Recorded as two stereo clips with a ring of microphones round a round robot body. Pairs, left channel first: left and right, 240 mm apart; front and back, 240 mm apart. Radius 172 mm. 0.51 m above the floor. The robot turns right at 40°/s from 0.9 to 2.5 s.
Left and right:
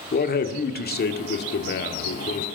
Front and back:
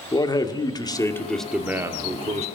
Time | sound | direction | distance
0.1 | a man speaking | 65° left | 1.4 m